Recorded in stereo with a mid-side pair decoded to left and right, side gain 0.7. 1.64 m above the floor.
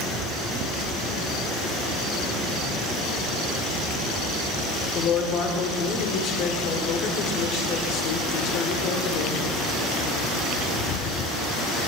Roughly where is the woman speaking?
Ahead left.